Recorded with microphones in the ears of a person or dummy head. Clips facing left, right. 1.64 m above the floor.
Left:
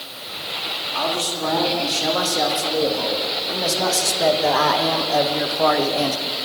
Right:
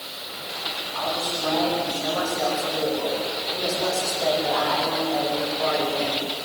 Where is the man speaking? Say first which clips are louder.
Left 4 dB; 65° left (ahead or behind), 4.5 m; by 6.5 s 75° left (ahead or behind), 1.2 m.